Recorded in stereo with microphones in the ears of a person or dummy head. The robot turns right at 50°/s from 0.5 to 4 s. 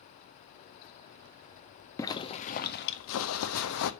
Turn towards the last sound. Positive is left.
turn(degrees=115)